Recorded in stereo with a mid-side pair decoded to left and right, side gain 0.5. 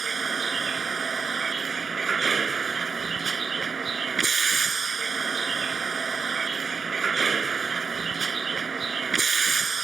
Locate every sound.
0.0 s a vehicle: 35° right